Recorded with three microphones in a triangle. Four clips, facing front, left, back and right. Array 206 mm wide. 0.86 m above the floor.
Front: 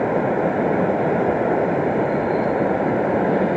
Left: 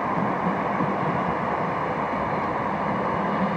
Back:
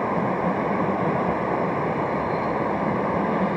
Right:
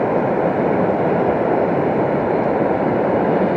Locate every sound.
0.0 s running water: 65° right